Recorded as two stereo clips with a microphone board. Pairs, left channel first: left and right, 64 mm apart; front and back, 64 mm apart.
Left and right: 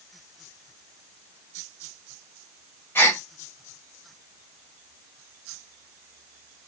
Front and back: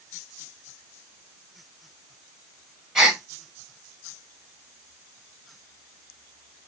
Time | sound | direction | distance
3.0 | a gasp | 105° left | 2 m